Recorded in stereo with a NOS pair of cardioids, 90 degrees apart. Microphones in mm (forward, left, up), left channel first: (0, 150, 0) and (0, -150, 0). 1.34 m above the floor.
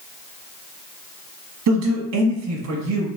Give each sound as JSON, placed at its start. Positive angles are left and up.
{"t": 1.7, "sound": "a man speaking", "azimuth_deg": -60, "distance_m": 1.3}